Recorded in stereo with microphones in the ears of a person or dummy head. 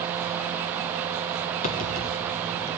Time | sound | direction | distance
1.6 | typing on a keyboard | 40° left (ahead or behind) | 0.6 m